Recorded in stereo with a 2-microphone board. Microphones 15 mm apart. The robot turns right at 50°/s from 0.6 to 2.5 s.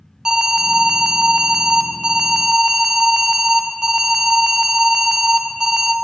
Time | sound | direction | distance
0.2 | an alarm | 130° right | 0.6 m